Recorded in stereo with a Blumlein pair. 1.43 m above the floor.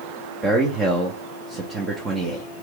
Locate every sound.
0.4 s a man speaking: 20° right, 0.8 m